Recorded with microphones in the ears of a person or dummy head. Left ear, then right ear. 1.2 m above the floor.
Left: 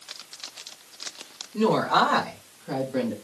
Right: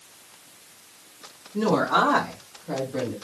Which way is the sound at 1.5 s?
70° left (ahead or behind).